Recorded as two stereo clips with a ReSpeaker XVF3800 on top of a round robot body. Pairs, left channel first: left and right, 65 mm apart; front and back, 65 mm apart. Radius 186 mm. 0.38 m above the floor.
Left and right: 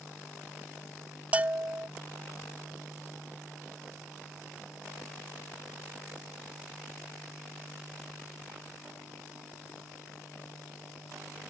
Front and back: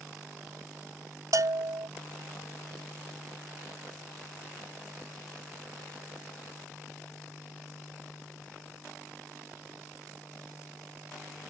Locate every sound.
1.3 s a bell: 155° right